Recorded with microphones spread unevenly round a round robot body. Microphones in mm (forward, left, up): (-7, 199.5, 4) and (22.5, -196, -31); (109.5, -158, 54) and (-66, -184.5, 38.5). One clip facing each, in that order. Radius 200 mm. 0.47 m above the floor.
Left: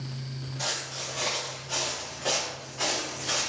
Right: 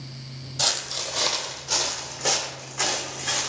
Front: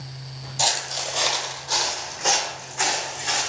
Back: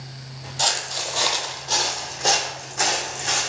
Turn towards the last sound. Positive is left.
turn(degrees=-125)